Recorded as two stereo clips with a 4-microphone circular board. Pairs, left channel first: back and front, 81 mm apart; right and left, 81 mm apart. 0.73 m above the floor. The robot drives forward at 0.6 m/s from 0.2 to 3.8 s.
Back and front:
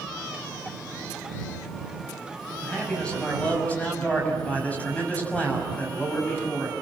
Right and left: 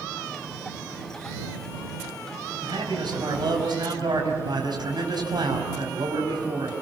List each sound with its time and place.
2.6 s a man speaking: 100° left, 5.5 m; by 6.7 s 110° left, 5.5 m